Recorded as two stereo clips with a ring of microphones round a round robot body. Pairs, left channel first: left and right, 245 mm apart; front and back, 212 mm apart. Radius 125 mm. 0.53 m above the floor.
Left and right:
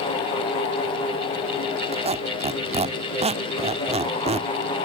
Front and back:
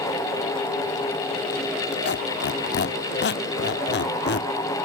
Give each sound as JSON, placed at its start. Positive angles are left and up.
{"t": 1.9, "sound": "a squeak", "azimuth_deg": -30, "distance_m": 0.8}